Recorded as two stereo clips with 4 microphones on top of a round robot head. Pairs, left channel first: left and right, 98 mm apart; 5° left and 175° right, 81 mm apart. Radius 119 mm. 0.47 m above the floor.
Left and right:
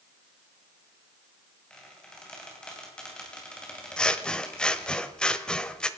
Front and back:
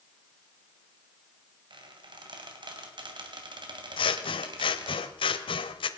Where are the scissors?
10° left, 0.9 m.